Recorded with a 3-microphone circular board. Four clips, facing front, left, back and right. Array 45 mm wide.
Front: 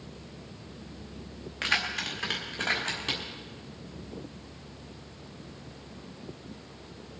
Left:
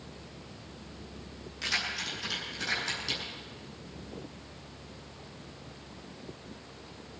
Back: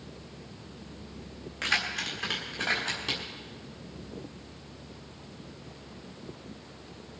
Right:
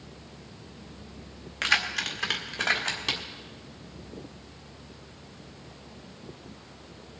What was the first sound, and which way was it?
Keys jangling, 65° right.